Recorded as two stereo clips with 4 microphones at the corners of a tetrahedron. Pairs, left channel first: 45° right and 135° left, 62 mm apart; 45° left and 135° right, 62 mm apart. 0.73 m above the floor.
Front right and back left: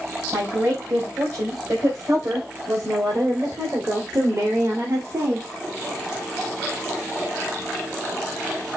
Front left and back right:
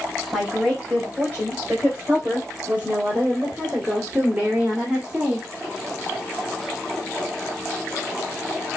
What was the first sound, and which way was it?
A woman speaking, 155° left.